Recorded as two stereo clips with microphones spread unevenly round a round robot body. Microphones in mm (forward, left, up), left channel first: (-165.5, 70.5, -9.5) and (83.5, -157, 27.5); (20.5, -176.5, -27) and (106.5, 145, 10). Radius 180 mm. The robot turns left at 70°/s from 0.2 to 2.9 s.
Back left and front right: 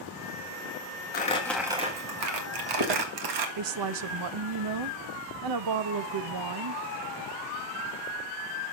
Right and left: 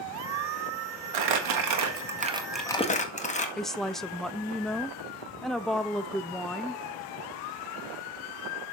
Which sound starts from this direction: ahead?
A woman speaking, at 3.6 s.